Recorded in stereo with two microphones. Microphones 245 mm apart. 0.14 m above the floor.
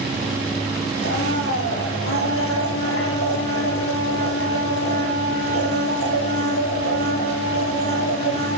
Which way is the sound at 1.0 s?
65° left (ahead or behind).